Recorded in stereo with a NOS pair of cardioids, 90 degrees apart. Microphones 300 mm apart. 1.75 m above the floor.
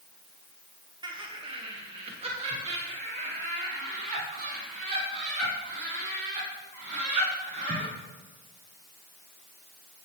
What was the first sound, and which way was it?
Laughter, 15° right.